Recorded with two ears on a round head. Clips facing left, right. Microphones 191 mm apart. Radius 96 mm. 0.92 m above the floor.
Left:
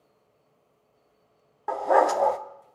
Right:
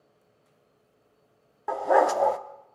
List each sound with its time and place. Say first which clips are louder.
1.7 s a dog barking: even; centre (ahead or behind), 0.6 m